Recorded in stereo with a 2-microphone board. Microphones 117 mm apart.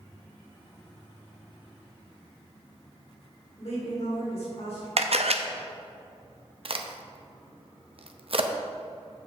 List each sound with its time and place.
3.6 s a woman speaking: 70° left (ahead or behind), 3 m
5.0 s a camera shutter: 65° right (ahead or behind), 0.6 m
6.7 s a crack: 55° right (ahead or behind), 0.6 m